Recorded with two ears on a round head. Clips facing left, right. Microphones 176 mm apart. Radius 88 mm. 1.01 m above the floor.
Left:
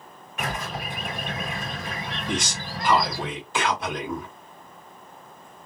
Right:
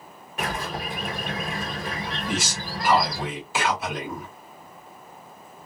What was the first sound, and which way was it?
A bird, 30° right (ahead or behind).